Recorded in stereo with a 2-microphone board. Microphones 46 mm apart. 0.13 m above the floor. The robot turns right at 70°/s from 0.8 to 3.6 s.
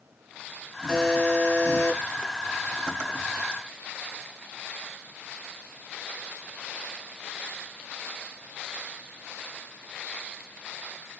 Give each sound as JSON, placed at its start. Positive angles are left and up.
{"t": 0.9, "sound": "a buzzer", "azimuth_deg": 0, "distance_m": 1.3}